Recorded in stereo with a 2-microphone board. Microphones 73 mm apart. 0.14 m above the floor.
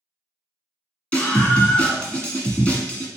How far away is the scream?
About 1.4 m.